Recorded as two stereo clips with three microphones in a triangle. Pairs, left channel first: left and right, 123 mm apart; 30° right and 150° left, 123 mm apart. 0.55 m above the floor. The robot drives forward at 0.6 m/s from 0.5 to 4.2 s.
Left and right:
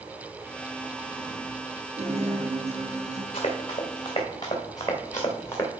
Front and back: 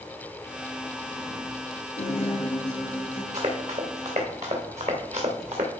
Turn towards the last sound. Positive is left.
turn(degrees=160)